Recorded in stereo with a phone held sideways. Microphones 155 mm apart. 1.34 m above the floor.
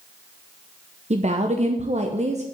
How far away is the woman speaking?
About 0.9 m.